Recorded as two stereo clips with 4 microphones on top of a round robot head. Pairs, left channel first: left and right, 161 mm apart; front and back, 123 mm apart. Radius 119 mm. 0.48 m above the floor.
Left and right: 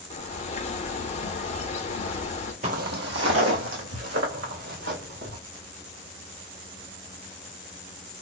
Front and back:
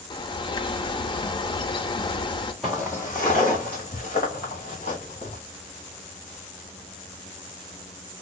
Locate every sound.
0.1 s a bird: 50° left, 0.6 m
2.6 s footsteps: 95° right, 0.5 m; by 5.4 s 65° right, 3 m